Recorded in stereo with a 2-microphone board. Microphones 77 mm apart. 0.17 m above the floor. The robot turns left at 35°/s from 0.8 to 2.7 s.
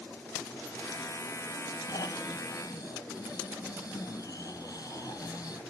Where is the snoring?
60° left (ahead or behind), 0.6 m; by 5.6 s 55° left (ahead or behind), 0.6 m.